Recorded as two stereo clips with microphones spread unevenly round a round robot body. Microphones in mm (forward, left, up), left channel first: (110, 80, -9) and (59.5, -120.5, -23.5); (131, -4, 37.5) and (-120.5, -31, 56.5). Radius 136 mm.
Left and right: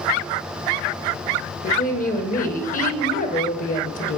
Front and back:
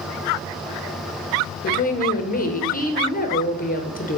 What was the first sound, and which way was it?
A woman speaking, 40° left.